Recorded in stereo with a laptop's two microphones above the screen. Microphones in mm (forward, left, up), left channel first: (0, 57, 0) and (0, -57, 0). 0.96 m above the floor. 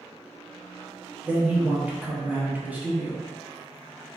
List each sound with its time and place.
1.2 s a man speaking: 15° right (ahead or behind), 0.9 m